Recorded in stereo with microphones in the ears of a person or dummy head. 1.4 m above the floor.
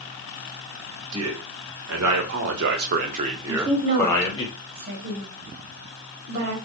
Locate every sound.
1.1 s a man speaking: 85° right, 1.5 m; by 4.5 s 25° left (ahead or behind), 0.8 m
3.5 s a woman speaking: 55° right (ahead or behind), 1.5 m